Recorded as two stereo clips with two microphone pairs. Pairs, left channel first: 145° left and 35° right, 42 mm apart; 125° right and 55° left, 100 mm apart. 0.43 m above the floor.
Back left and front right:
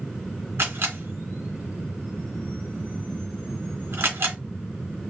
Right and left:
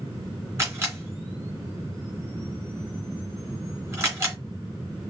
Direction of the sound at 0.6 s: 5° right.